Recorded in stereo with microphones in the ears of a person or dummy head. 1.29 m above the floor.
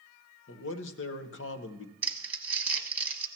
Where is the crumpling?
15° right (ahead or behind), 1.2 m.